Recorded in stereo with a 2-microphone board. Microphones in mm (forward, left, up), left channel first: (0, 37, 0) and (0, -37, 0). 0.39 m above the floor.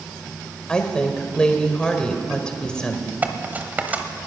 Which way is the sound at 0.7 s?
10° left (ahead or behind).